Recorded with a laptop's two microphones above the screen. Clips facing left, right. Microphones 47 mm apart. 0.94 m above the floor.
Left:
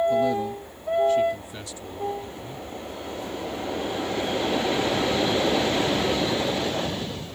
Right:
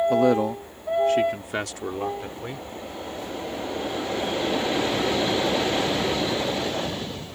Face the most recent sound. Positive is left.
turn(degrees=-75)  # may be behind; listen again after turning